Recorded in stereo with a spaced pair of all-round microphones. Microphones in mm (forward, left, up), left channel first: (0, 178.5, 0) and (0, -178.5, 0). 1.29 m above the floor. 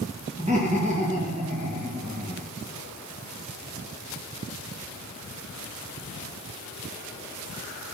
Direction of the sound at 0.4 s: 20° right (ahead or behind).